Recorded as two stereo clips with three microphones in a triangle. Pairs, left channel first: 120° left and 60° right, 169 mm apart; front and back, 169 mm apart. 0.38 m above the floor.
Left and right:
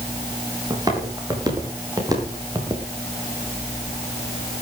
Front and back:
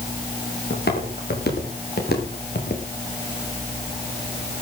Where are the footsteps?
5° left, 7 m.